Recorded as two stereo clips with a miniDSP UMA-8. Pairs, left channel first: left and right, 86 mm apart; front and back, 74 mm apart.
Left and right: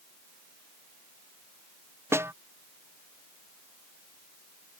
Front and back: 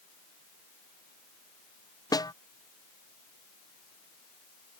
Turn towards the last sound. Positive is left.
turn(degrees=-30)